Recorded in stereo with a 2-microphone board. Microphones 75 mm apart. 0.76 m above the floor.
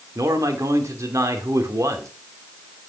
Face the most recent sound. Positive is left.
turn(degrees=-40)  # may be behind; listen again after turning